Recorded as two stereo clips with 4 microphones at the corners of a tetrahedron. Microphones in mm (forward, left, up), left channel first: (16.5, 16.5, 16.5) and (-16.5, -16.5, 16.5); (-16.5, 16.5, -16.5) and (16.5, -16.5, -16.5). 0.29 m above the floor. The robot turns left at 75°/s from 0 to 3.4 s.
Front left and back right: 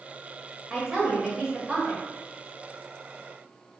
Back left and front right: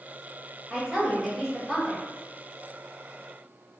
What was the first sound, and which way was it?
A woman speaking, 75° right.